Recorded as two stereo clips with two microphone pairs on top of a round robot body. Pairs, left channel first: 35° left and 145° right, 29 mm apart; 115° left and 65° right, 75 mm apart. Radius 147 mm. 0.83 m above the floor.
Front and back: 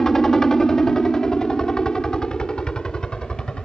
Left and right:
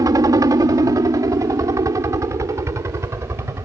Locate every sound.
0.0 s a helicopter: 40° right; by 3.6 s 20° right